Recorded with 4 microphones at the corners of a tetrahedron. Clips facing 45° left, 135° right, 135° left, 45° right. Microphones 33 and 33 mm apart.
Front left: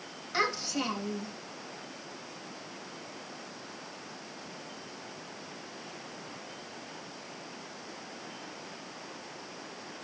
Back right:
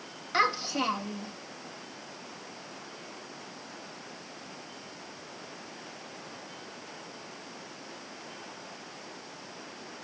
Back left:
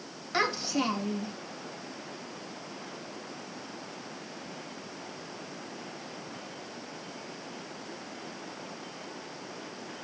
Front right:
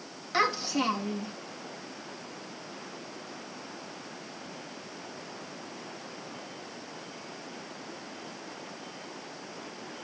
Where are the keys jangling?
I don't hear keys jangling.